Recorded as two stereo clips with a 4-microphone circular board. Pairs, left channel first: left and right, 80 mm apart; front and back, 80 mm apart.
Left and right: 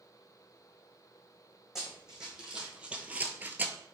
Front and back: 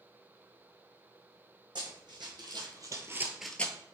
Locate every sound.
1.8 s running footsteps: 175° right, 1.8 m; by 3.8 s 35° right, 0.6 m